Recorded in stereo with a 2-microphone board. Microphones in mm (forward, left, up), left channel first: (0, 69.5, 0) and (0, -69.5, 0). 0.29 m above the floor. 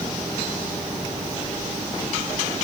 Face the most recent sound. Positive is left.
No sound to turn to.